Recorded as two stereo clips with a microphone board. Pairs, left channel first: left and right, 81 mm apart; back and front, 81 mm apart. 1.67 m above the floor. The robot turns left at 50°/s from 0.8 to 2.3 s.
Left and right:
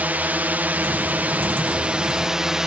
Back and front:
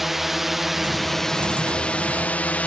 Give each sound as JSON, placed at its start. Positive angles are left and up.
{"t": 0.0, "sound": "a drone", "azimuth_deg": -85}